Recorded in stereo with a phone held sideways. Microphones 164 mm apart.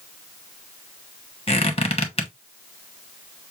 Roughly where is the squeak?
Left.